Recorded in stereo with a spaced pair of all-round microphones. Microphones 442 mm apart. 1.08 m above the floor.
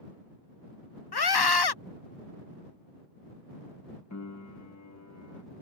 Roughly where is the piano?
Left.